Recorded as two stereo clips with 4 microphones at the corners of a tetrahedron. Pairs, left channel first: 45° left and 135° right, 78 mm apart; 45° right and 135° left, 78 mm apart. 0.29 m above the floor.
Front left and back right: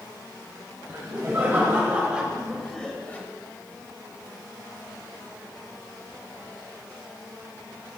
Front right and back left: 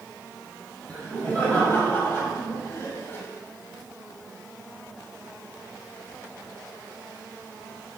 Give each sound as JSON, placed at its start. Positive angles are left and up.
{"t": 0.9, "sound": "laughter", "azimuth_deg": -110, "distance_m": 2.0}